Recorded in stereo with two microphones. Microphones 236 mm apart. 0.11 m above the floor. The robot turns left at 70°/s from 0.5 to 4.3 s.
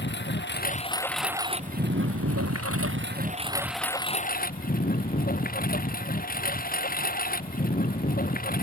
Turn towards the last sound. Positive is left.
turn(degrees=145)